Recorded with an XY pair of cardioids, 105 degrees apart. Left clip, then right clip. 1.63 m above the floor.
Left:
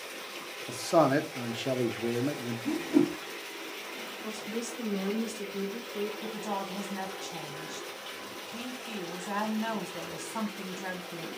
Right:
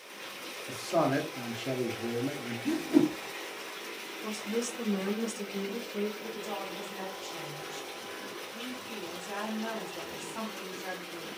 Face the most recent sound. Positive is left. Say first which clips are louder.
# left 2 dB
turn(degrees=60)